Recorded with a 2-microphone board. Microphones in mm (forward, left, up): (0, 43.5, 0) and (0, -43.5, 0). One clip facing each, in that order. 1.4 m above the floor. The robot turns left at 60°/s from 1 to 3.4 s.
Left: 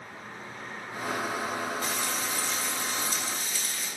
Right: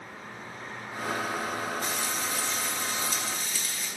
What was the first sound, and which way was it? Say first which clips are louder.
Frying: even; 160° right.